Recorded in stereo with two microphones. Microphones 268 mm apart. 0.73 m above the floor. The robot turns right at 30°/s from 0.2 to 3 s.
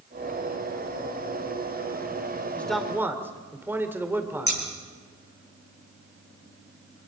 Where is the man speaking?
5° left (ahead or behind), 2.5 m; by 4.6 s 5° right (ahead or behind), 2.5 m.